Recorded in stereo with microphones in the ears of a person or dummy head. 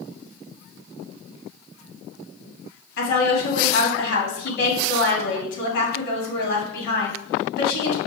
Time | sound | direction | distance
3.0 | a woman speaking | 65° left (ahead or behind) | 2 m